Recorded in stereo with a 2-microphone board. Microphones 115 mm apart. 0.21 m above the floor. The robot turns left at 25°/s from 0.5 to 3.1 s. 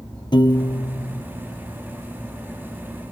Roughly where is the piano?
Left.